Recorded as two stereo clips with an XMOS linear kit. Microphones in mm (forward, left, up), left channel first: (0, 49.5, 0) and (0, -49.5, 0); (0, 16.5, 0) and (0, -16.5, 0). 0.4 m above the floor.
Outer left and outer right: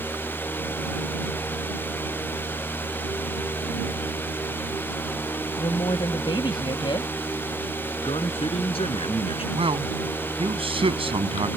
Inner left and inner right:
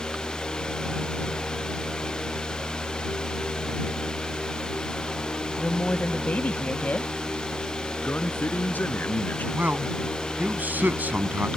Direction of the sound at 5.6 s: 55° left (ahead or behind).